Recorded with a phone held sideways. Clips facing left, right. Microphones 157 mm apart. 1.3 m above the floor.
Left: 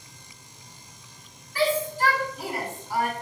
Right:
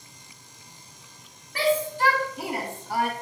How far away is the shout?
About 2 m.